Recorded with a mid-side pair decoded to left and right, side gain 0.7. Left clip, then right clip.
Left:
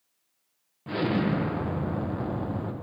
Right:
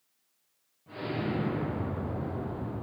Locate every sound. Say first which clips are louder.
0.9 s an explosion: left 7 dB; 60° left, 1.1 m